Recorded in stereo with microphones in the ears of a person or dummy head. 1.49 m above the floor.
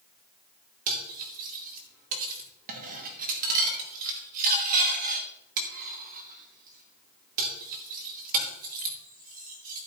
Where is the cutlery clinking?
40° right (ahead or behind), 2.5 m.